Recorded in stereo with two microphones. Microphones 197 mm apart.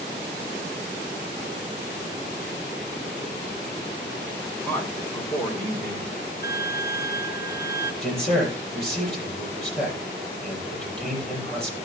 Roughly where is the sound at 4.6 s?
Centre.